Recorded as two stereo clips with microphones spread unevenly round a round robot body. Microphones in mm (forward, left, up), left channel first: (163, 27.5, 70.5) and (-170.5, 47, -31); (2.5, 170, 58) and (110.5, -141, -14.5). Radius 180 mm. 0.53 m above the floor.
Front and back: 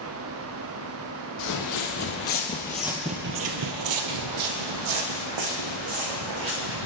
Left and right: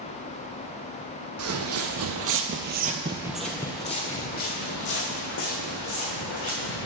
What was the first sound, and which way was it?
Footsteps, 20° right.